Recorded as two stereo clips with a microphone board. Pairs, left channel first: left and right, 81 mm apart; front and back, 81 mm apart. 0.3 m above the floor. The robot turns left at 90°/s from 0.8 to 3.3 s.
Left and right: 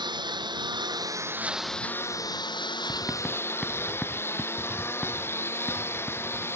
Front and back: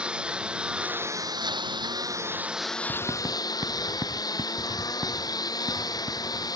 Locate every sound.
0.0 s a lawn mower: 100° right; by 6.6 s 35° left
2.9 s writing: 145° right; by 6.5 s straight behind